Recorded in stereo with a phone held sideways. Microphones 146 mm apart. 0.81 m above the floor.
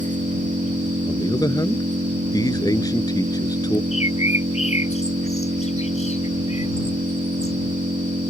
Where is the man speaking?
25° left (ahead or behind).